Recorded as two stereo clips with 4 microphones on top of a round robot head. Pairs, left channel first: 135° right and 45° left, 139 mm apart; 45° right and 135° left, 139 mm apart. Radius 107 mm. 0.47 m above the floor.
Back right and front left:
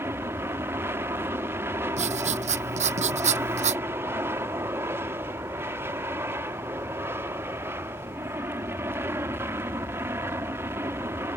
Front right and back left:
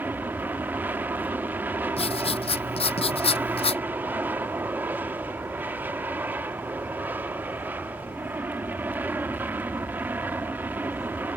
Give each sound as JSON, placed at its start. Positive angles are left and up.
{"t": 0.0, "sound": "an aircraft", "azimuth_deg": 85}
{"t": 2.0, "sound": "writing", "azimuth_deg": 5}